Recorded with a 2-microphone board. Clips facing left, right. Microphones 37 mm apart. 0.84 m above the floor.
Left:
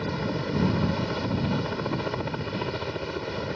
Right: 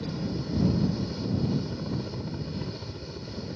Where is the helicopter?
55° left (ahead or behind).